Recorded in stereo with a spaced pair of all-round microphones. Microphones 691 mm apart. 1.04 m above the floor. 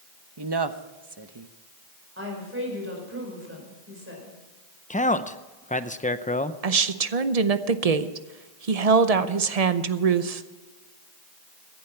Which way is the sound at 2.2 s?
20° right (ahead or behind).